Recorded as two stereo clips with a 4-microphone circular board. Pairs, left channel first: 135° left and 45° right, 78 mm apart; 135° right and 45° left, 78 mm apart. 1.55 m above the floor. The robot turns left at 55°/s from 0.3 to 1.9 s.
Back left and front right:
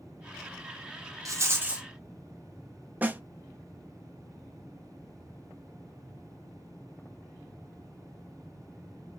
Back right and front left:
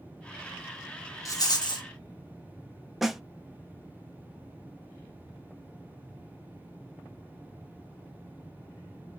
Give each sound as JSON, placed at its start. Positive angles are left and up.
{"t": 1.2, "sound": "a rattle", "azimuth_deg": -90, "distance_m": 1.0}
{"t": 3.0, "sound": "a snare drum", "azimuth_deg": -40, "distance_m": 0.5}